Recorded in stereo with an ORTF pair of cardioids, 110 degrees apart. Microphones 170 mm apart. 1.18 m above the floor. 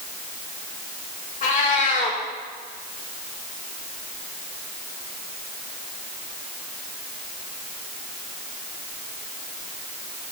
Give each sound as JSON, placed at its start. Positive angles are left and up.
{"t": 1.4, "sound": "a cat meowing", "azimuth_deg": 45, "distance_m": 2.0}